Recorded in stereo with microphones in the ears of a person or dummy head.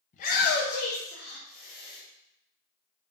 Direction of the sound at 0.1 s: 35° left (ahead or behind).